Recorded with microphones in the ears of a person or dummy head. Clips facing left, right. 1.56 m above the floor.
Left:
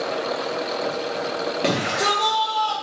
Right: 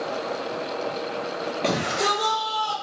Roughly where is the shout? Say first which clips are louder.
Even; centre.